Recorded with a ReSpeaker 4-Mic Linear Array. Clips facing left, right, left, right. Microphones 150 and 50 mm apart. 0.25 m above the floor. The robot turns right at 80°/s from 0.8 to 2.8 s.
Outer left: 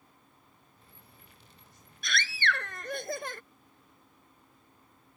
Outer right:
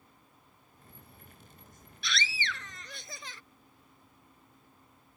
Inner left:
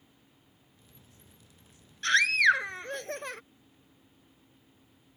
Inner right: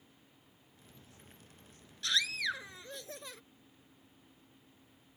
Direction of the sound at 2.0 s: 55° left.